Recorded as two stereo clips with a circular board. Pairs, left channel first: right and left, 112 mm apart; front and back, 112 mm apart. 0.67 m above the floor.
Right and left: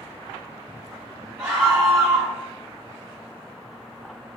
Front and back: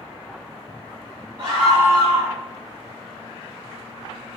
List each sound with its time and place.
1.4 s a scream: 165° left, 1.4 m